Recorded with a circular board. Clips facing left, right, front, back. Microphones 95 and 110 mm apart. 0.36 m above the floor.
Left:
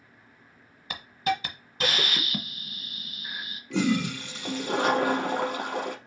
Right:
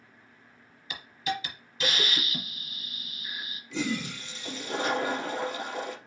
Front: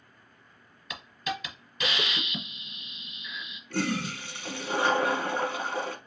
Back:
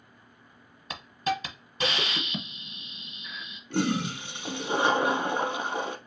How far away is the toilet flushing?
About 0.7 m.